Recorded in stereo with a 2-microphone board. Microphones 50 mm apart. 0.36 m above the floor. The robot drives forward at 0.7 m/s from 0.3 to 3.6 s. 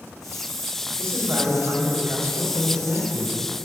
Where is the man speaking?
75° right (ahead or behind), 4 m; by 3.4 s 60° right (ahead or behind), 4.5 m.